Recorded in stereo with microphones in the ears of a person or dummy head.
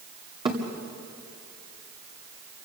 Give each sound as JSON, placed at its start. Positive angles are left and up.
{"t": 0.5, "sound": "a thud", "side_deg": -20, "distance_m": 2.0}